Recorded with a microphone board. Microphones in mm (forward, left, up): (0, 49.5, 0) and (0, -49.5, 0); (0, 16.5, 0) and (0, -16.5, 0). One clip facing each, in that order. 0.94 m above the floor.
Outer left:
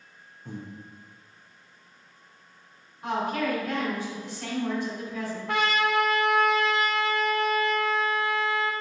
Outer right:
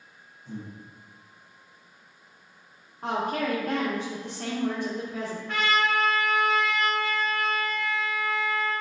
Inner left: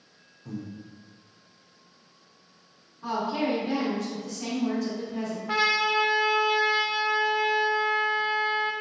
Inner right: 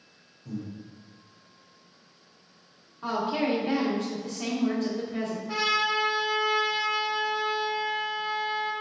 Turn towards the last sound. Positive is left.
turn(degrees=65)  # may be behind; listen again after turning